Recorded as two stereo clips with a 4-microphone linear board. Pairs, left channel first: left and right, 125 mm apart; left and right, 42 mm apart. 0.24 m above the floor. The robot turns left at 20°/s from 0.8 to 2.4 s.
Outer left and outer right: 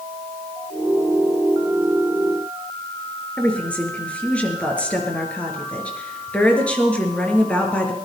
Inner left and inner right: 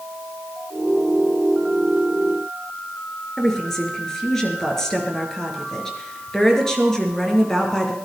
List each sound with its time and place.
3.4 s a woman speaking: 10° left (ahead or behind), 3 m